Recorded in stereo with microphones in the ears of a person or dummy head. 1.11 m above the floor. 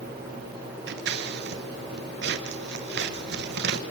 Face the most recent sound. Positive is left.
turn(degrees=-55)  # may be behind; listen again after turning